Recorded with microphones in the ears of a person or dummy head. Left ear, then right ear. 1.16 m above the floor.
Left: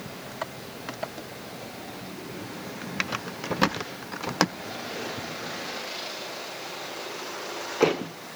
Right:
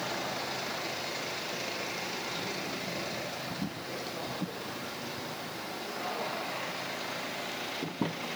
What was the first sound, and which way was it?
Only background noise.